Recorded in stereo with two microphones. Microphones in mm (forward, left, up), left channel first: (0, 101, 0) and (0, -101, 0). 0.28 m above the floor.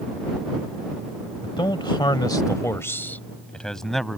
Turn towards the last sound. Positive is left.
turn(degrees=0)  # may be behind; listen again after turning